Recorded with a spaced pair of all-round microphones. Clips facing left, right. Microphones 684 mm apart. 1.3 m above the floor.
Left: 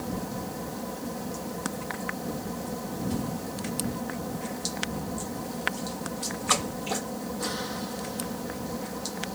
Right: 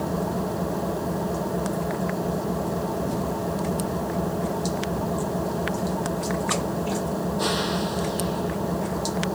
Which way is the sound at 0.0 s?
85° right.